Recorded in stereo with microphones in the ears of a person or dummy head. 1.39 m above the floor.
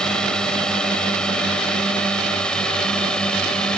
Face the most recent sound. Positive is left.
turn(degrees=0)  # may be behind; listen again after turning